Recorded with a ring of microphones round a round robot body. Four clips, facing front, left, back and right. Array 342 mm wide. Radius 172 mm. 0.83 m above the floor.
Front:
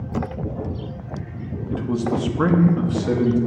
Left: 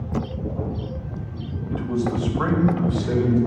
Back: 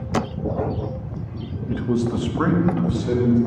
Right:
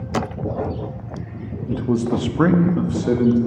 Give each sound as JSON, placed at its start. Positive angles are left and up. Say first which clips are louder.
{"t": 1.7, "sound": "a man speaking", "louder": "right 4 dB, back 1 dB", "azimuth_deg": -115, "distance_m": 0.8}